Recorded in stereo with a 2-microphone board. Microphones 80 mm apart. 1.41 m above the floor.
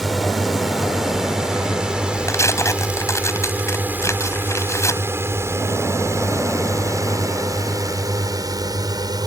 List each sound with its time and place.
0.0 s a drone: centre (ahead or behind); by 9.3 s 55° right (ahead or behind)
2.3 s tearing paper: 40° left (ahead or behind)